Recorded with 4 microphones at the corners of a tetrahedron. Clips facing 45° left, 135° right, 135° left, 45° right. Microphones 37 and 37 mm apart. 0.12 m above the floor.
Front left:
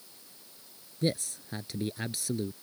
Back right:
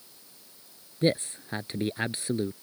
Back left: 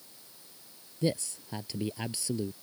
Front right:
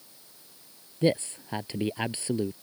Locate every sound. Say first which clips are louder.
1.0 s a man speaking: back right 5 dB, front right 6 dB; 85° right